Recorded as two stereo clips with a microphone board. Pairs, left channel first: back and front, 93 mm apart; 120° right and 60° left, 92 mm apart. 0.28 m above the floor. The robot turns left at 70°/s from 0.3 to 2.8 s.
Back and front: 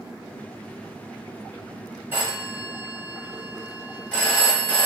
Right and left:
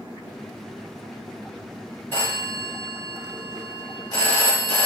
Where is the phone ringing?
60° right, 1.0 m; by 4.9 s 105° right, 1.0 m.